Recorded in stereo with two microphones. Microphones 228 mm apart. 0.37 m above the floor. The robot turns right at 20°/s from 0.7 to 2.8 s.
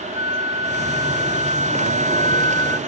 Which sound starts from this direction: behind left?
A flute, at 0.1 s.